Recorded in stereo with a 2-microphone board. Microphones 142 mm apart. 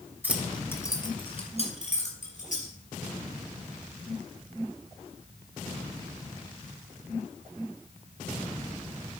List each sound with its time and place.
0.2 s keys jangling: 15° right (ahead or behind), 1.1 m; by 2.7 s 65° left (ahead or behind), 3.5 m